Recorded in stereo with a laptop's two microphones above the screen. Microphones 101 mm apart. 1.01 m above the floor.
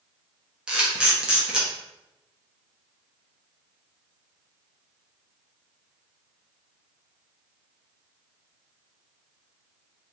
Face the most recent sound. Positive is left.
turn(degrees=-10)  # may be behind; listen again after turning